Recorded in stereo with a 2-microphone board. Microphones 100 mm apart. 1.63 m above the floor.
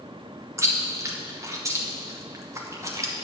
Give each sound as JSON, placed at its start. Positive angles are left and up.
{"t": 0.6, "sound": "chewing", "side_deg": -30, "distance_m": 1.0}